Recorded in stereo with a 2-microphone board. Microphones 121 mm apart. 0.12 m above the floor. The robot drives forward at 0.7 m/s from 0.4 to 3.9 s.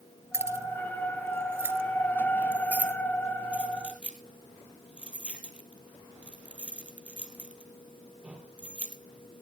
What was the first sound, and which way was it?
Keys jangling, 20° right (ahead or behind).